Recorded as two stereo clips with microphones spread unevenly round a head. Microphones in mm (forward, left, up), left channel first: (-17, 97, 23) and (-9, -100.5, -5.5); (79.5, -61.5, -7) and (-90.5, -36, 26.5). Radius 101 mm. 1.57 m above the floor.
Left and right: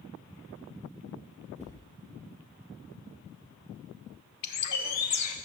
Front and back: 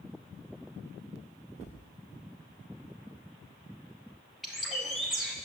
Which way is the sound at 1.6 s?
35° left.